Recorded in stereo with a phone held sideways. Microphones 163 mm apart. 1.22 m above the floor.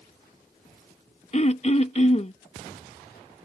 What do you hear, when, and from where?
1.3 s throat clearing: 40° left (ahead or behind)